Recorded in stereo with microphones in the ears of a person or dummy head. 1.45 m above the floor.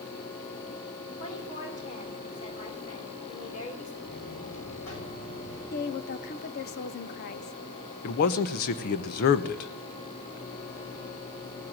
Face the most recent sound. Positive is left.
turn(degrees=45)  # may be behind; listen again after turning